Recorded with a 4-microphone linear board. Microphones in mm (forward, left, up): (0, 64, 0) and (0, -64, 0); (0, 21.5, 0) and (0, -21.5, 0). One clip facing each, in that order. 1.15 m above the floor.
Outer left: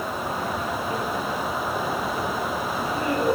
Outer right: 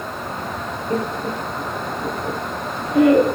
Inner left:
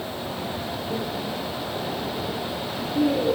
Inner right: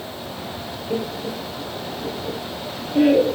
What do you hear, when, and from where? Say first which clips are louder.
0.9 s laughter: outer right 3 dB, inner right 5 dB; 50° right (ahead or behind), 1.8 m; by 3.4 s 75° right (ahead or behind), 3 m